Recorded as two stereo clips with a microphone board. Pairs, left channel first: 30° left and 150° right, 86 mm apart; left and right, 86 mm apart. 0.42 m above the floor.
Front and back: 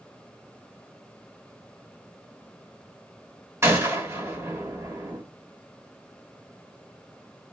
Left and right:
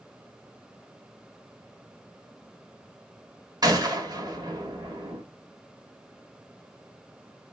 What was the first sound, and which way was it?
A gunshot, 100° right.